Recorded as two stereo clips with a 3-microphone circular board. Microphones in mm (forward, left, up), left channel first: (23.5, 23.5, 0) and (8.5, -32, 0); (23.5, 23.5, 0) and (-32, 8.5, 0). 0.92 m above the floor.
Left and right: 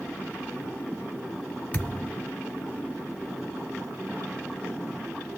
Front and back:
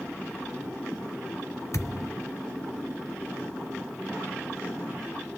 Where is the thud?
10° left, 0.9 m.